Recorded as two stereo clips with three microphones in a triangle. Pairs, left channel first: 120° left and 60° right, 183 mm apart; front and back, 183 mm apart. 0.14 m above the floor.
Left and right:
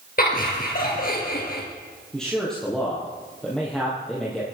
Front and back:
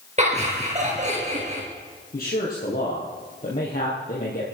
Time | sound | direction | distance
0.2 | laughter | 140° left | 3 m
2.1 | a man speaking | 35° left | 4.5 m